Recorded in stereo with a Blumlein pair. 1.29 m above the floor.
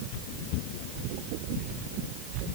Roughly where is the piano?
I don't hear a piano.